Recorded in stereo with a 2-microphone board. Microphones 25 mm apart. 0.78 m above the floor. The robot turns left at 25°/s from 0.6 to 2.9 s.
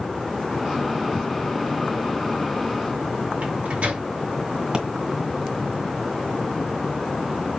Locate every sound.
3.4 s a microwave: 60° right (ahead or behind), 3 m
4.7 s a pop: 30° right (ahead or behind), 2 m